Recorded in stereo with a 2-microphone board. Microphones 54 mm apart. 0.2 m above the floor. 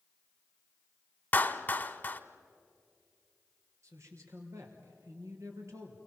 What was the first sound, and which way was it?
A clap, 30° left (ahead or behind).